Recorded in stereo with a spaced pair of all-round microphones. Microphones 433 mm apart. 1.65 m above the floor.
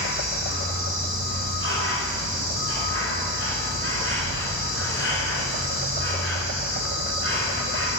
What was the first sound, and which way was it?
An insect, 30° left (ahead or behind).